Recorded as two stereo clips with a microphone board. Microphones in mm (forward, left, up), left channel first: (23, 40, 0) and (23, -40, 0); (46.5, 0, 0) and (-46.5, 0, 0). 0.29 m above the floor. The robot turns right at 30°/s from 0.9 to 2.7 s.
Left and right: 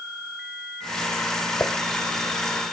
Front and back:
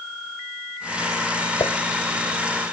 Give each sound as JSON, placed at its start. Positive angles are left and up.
{"t": 1.6, "sound": "dishes clattering", "azimuth_deg": 30}